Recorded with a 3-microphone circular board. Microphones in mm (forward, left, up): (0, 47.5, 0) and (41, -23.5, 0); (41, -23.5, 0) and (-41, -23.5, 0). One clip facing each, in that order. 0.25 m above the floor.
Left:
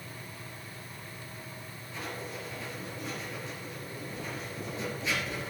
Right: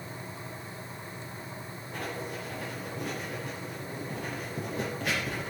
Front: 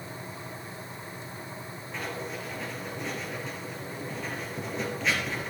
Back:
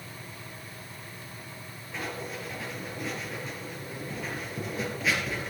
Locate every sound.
1.9 s writing: 95° right, 3.5 m